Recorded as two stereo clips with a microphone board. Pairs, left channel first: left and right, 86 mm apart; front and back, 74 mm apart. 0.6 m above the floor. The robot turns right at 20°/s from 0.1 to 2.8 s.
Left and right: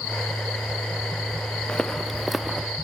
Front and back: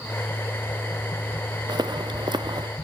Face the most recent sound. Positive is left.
turn(degrees=-170)